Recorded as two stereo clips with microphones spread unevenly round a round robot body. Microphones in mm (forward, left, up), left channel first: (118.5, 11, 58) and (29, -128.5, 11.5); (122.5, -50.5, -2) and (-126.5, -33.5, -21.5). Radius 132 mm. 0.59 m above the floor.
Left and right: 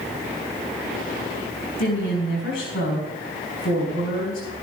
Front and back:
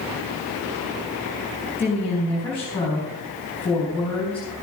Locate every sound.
1.8 s a woman speaking: 80° left, 4.5 m